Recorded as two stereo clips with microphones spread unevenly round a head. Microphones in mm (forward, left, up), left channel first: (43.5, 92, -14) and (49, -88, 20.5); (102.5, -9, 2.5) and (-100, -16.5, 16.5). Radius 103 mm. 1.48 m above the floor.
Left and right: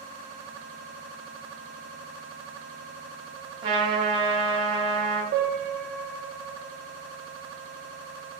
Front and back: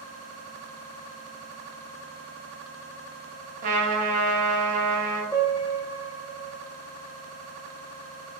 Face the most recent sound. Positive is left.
turn(degrees=-70)